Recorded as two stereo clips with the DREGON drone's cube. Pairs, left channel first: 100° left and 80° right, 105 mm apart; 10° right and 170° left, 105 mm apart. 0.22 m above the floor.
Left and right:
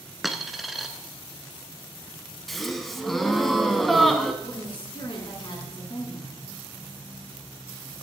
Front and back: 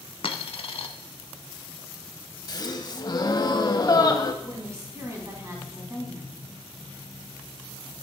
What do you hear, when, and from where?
0.2 s a dropped coin: 10° left, 0.7 m
2.5 s a gasp: 15° left, 0.6 m
4.4 s a woman speaking: 115° left, 2.5 m